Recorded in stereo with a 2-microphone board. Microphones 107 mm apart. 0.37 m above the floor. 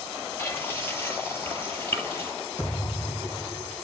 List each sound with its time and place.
0.4 s frying: 20° left (ahead or behind), 7.5 m
2.6 s a thud: 20° left (ahead or behind), 5.5 m